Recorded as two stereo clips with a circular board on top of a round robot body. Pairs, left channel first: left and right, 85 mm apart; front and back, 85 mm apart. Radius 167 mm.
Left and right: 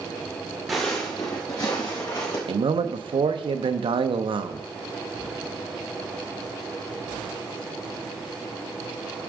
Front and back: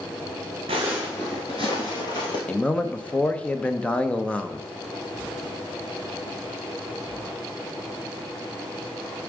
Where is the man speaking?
75° right, 0.8 m.